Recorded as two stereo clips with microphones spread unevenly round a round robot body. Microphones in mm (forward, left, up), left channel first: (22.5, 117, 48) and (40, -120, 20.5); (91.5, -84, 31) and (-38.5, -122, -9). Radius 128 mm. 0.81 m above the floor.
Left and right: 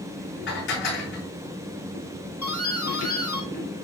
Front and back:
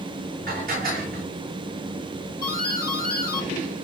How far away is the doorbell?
About 5 m.